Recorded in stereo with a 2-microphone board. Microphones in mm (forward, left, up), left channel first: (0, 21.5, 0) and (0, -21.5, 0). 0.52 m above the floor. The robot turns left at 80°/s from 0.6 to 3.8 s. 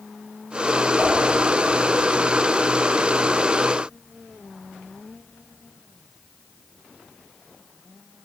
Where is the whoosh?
65° right (ahead or behind), 2.5 m; by 1.1 s 60° right (ahead or behind), 2.5 m.